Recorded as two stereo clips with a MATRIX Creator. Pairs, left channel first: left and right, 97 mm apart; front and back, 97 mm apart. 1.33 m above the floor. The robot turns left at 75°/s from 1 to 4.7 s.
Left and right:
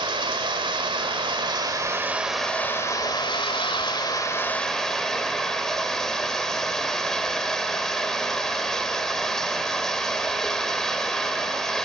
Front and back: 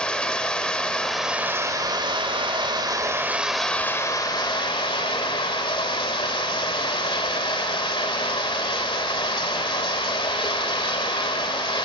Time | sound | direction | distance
0.0 | running water | 80° right | 1.8 m